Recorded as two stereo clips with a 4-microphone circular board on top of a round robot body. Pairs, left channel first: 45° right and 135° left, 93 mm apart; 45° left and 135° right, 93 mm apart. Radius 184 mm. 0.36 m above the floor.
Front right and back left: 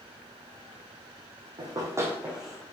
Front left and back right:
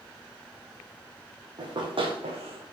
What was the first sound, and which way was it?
Running footsteps, 175° left.